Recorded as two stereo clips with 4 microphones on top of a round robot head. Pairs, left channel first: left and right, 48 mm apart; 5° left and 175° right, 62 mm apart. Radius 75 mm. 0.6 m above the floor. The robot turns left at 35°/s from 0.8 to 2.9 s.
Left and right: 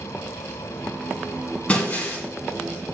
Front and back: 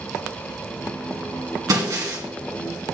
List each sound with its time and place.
1.7 s breaking glass: 160° left, 2 m; by 2.2 s 140° left, 2 m